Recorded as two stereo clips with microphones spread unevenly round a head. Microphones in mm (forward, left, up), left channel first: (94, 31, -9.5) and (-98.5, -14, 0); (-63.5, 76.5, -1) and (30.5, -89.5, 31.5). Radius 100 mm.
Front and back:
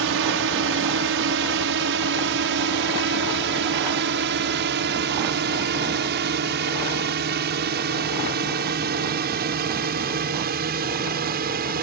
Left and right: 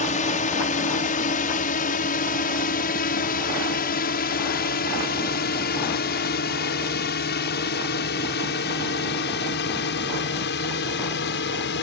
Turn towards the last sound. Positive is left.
turn(degrees=150)